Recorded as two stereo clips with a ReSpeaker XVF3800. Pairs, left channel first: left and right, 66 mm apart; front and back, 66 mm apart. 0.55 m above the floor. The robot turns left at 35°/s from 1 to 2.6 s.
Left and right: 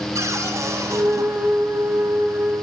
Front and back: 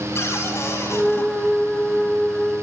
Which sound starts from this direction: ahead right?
A cupboard door, at 0.1 s.